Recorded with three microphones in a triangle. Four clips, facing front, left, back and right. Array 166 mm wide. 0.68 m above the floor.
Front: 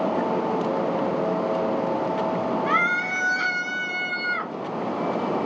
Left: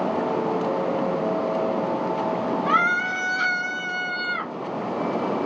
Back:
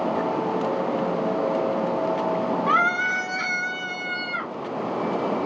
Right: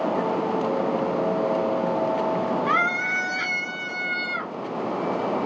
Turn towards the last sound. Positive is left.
turn(degrees=50)